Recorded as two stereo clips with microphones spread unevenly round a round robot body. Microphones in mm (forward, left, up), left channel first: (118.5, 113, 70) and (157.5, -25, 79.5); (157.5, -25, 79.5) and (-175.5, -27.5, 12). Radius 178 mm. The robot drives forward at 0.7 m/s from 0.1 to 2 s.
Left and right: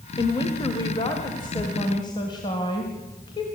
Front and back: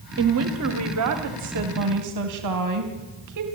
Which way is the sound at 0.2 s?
160° left.